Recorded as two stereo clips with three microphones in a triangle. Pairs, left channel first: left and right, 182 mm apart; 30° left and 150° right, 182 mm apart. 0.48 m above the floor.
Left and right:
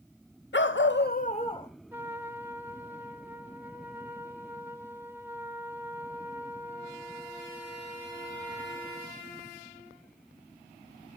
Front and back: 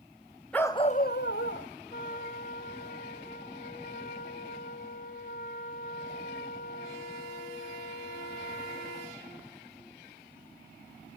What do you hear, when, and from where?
0.5 s a dog barking: 115° left, 0.7 m; by 1.7 s 25° left, 1.0 m
1.9 s a trumpet: 10° right, 0.9 m